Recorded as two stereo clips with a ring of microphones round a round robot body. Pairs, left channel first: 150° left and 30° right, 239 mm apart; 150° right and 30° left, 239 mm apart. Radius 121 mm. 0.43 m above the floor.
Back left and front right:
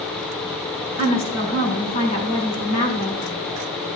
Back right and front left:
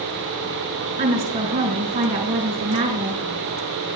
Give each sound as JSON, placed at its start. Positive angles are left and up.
{"t": 1.0, "sound": "a woman speaking", "azimuth_deg": 95, "distance_m": 5.0}